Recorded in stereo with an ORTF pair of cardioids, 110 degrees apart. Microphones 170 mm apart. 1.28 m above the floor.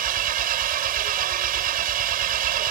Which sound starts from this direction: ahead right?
An engine running, at 0.0 s.